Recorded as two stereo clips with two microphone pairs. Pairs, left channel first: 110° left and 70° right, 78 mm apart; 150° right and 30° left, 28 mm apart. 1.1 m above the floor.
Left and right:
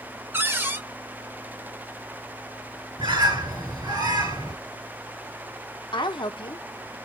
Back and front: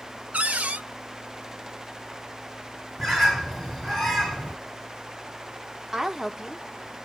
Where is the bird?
70° right, 2.5 m.